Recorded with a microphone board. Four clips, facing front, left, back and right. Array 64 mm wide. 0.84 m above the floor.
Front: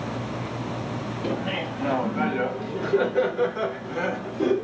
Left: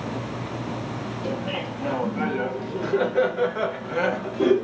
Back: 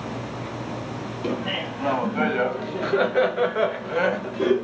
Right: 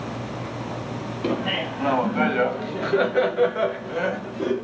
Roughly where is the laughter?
Right.